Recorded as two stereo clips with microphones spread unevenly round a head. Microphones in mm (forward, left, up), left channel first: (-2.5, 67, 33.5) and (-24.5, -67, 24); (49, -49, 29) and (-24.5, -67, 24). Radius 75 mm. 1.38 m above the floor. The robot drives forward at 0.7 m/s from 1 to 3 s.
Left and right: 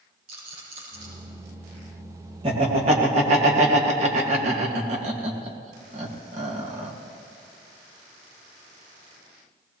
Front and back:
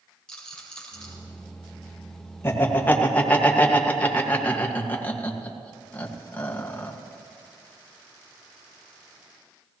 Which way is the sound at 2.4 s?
45° right.